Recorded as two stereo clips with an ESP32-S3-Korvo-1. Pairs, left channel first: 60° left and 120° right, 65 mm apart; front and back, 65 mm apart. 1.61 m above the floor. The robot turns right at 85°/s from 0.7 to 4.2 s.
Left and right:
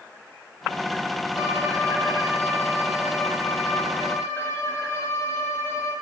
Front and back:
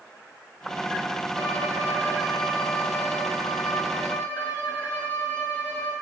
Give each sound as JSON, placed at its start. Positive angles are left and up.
{"t": 1.3, "sound": "a violin", "azimuth_deg": 180, "distance_m": 5.0}